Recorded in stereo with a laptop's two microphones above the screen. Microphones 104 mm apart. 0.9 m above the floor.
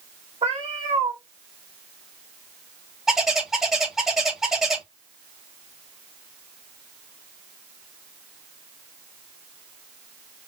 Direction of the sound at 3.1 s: 5° right (ahead or behind).